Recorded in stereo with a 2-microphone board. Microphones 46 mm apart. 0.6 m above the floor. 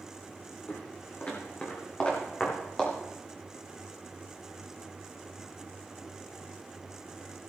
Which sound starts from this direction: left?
Footsteps, at 0.7 s.